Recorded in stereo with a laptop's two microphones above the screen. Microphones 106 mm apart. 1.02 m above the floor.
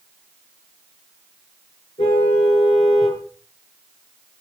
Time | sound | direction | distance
2.0 | a car horn | 65° left (ahead or behind) | 8 m